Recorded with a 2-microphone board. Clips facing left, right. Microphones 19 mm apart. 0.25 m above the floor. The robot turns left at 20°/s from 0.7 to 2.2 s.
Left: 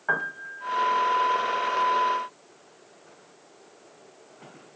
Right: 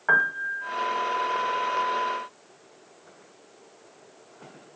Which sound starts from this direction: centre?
A piano, at 0.1 s.